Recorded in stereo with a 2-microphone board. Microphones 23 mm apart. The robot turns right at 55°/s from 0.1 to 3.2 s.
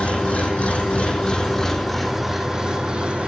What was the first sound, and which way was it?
An engine running, 70° left.